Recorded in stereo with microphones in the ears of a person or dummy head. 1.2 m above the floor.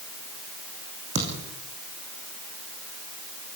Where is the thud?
35° right (ahead or behind), 5 m.